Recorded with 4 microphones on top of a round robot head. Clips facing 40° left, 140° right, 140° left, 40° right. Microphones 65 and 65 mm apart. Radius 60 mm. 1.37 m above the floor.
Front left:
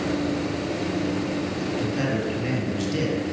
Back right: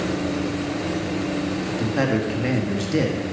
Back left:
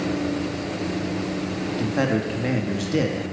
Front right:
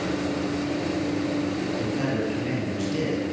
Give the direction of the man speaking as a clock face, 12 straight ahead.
6 o'clock.